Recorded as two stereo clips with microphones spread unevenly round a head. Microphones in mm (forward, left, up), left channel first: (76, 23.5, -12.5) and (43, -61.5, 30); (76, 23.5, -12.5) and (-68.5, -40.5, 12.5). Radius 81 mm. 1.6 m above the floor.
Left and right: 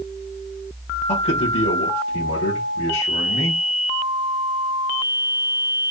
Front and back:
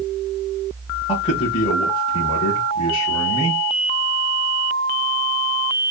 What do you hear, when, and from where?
1.1 s a man speaking: 85° left, 1.5 m